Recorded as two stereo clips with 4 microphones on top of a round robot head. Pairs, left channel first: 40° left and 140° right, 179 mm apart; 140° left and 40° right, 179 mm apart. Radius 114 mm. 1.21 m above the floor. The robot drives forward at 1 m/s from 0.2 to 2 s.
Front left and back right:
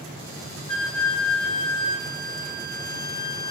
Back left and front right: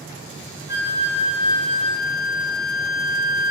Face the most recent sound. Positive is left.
turn(degrees=50)